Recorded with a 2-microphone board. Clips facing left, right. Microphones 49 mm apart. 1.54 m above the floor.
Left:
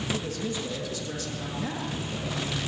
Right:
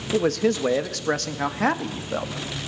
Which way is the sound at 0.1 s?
75° right (ahead or behind).